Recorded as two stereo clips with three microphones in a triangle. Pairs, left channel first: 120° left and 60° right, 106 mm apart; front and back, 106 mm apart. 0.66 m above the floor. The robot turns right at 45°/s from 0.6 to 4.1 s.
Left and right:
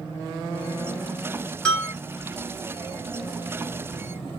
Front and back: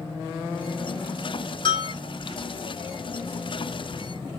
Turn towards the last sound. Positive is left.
turn(degrees=145)